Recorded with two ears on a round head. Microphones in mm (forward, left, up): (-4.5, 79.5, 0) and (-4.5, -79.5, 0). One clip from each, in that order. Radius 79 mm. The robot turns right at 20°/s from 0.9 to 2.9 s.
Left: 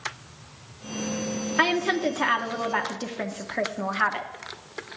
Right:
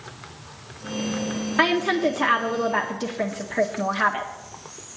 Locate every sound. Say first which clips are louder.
1.6 s a woman speaking: right 2 dB; 10° left (ahead or behind), 0.8 m; by 4.3 s 20° left (ahead or behind), 0.8 m